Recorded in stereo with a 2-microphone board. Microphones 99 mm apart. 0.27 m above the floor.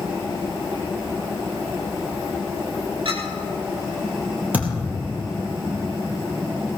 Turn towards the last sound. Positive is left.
turn(degrees=-15)  # may be behind; listen again after turning